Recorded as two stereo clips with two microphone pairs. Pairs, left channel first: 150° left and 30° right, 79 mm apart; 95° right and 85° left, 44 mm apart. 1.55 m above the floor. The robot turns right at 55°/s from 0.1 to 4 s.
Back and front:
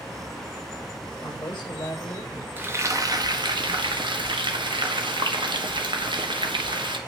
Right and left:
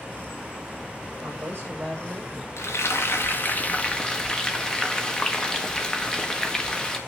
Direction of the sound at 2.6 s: 100° right.